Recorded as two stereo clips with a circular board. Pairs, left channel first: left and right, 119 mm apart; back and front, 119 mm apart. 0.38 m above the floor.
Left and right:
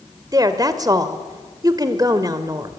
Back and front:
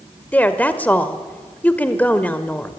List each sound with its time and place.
0.3 s a woman speaking: 110° right, 1.3 m